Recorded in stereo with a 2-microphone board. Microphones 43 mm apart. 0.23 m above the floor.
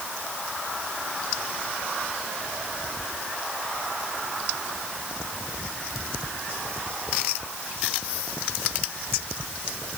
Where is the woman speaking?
I don't hear a woman speaking.